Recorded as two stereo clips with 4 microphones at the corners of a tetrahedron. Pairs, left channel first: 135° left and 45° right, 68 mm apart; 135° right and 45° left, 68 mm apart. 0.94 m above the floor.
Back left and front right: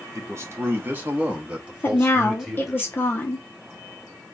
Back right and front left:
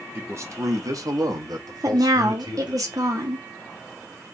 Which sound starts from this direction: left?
A woman speaking, at 1.8 s.